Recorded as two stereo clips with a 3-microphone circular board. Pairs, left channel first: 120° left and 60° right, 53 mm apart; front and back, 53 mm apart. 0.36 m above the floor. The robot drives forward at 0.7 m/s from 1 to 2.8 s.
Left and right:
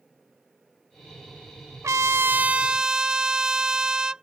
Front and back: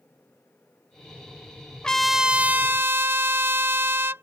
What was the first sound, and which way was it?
A trumpet, 75° right.